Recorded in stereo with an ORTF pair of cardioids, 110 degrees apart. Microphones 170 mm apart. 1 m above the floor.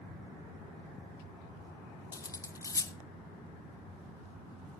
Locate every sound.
2.1 s cutlery clinking: 20° left, 0.6 m